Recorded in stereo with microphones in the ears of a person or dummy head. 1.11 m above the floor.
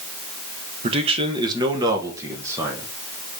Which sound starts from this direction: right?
A man speaking, at 0.8 s.